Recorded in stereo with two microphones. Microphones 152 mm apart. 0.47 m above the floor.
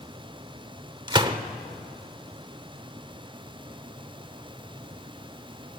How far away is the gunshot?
About 1.0 m.